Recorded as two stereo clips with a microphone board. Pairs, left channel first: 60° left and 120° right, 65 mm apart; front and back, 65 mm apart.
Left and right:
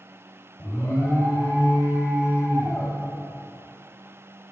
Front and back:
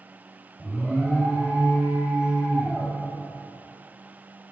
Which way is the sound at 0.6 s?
100° left.